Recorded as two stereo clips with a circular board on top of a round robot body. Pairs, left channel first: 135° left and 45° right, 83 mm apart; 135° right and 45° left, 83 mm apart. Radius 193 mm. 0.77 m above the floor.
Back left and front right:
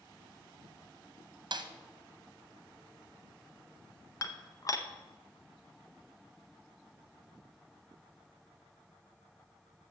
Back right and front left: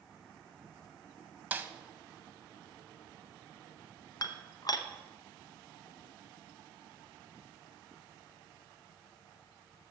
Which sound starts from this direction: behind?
Dishes clattering, at 4.2 s.